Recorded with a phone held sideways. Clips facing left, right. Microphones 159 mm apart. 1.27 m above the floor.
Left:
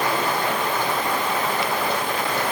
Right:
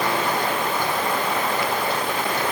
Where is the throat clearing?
No throat clearing in this recording.